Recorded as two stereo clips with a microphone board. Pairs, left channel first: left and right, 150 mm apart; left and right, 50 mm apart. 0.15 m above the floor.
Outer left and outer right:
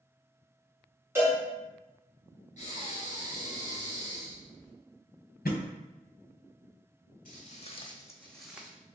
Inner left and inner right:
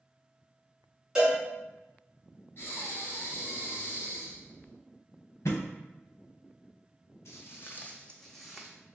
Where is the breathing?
55° left (ahead or behind), 1.5 m.